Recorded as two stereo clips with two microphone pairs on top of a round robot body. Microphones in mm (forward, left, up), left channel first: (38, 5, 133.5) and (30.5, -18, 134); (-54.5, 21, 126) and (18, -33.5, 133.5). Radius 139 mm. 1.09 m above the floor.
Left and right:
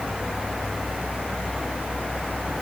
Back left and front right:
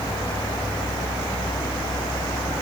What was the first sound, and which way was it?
Only background noise.